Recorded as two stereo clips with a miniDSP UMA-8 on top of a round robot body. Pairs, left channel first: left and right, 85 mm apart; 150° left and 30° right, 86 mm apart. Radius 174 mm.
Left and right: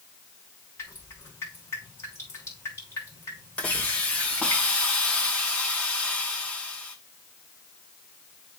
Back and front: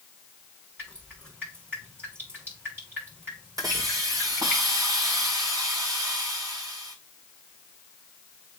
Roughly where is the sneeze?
No sneeze in this recording.